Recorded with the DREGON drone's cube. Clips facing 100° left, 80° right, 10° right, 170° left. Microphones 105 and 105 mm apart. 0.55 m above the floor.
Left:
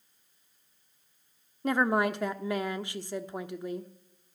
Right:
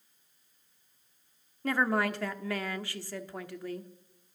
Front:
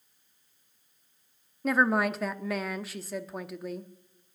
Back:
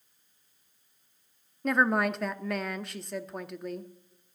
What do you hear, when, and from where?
1.6 s a woman speaking: 75° left, 0.8 m